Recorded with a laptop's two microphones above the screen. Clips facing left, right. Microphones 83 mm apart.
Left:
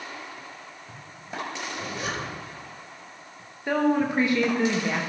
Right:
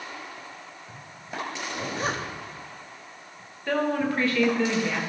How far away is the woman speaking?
About 1.2 m.